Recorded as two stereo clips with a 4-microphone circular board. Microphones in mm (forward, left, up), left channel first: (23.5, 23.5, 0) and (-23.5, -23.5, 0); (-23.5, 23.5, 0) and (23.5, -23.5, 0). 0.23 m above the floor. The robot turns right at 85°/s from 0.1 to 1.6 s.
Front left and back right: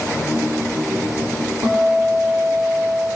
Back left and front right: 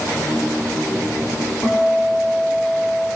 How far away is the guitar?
About 7 m.